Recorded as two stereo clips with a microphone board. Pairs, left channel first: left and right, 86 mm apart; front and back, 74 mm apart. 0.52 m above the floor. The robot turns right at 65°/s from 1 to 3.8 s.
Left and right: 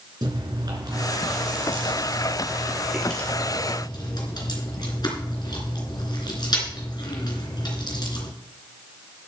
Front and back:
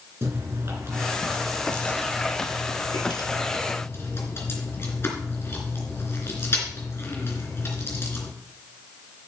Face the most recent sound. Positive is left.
turn(degrees=55)